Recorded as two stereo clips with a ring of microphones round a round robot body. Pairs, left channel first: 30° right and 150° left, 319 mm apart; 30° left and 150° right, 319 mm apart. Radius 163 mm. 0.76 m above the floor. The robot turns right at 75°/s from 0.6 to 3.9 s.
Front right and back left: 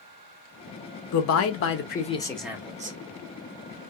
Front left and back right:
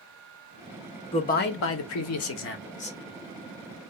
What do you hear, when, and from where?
1.1 s a man speaking: 40° right, 0.7 m; by 3.0 s 100° left, 0.7 m